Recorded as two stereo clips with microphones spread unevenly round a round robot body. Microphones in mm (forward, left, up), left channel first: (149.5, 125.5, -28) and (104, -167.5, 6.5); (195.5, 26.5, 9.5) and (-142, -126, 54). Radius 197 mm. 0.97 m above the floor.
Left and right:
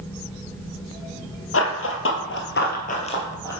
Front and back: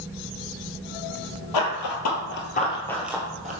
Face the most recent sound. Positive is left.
turn(degrees=170)